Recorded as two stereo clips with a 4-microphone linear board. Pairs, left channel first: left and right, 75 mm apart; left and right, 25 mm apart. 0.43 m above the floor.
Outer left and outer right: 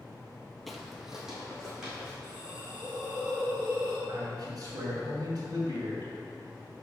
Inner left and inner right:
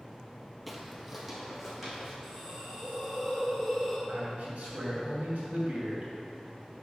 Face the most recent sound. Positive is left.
turn(degrees=-65)  # may be behind; listen again after turning